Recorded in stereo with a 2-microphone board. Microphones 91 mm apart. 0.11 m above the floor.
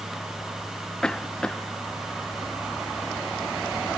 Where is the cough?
10° left (ahead or behind).